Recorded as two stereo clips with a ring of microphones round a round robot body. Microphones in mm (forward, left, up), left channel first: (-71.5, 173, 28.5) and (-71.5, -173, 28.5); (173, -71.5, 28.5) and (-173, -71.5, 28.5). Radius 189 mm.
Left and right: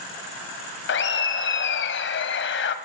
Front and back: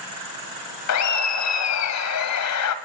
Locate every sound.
0.9 s laughter: 35° left, 1.7 m